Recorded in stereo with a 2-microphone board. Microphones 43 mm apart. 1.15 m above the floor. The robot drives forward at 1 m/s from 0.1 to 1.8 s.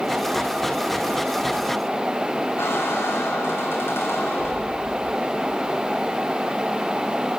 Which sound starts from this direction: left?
A squeak, at 2.6 s.